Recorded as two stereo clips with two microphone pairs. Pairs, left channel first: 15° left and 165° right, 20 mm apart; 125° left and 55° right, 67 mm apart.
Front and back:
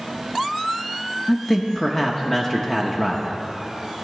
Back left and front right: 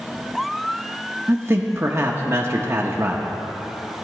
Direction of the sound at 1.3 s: 45° right.